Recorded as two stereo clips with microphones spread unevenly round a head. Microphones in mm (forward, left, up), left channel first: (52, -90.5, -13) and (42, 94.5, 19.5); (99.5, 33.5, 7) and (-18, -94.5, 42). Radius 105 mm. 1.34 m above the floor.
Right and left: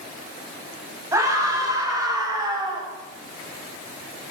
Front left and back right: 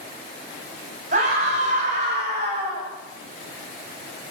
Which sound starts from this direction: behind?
A scream, at 1.1 s.